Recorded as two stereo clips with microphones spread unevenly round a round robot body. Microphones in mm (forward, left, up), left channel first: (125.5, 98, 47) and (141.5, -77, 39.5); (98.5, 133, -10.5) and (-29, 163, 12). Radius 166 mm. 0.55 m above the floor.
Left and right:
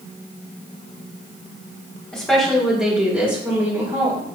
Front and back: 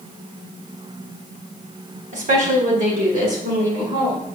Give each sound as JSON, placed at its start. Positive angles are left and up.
{"t": 2.1, "sound": "a woman speaking", "azimuth_deg": 180, "distance_m": 1.7}